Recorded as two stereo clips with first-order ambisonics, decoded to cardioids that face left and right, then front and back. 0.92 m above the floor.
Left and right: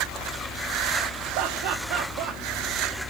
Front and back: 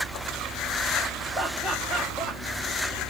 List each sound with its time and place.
1.4 s laughter: 90° right, 1.2 m